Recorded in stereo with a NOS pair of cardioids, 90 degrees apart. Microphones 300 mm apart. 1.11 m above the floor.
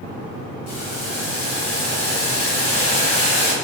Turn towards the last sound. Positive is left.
turn(degrees=55)